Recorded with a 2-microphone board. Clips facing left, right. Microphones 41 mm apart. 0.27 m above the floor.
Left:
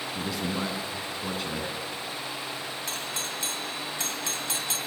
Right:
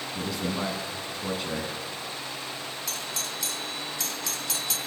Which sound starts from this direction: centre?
A man speaking, at 0.1 s.